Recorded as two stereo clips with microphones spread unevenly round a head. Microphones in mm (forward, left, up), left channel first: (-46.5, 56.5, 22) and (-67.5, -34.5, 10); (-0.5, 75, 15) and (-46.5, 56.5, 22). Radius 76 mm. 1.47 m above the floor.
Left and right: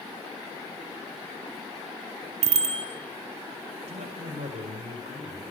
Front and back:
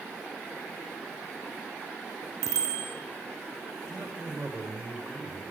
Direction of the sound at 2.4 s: 105° right.